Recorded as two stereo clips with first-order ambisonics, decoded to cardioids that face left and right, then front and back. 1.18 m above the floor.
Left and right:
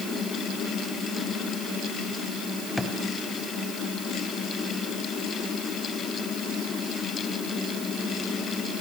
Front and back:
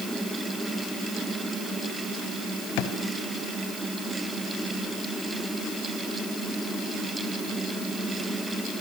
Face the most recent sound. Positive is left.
turn(degrees=0)